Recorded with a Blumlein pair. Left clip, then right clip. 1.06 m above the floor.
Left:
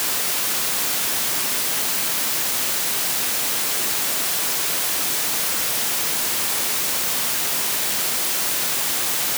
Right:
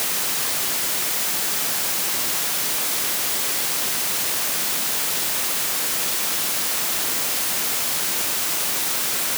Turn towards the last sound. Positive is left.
No sound to turn to.